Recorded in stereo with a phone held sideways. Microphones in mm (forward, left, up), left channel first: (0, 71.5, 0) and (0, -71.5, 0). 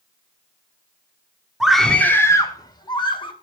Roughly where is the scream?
Centre.